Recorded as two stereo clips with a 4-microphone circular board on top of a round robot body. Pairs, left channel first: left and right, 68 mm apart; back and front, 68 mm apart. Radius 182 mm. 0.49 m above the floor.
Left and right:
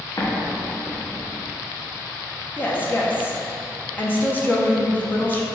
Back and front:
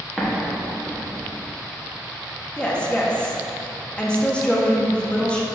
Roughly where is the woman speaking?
Behind left.